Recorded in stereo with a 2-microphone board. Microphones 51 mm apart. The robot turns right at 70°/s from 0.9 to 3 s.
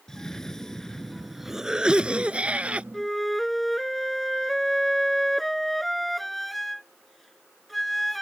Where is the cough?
10° left (ahead or behind); by 2.8 s 25° right (ahead or behind).